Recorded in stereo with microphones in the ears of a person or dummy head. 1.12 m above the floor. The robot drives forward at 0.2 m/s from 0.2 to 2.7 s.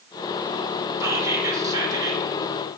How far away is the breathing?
I don't hear breathing.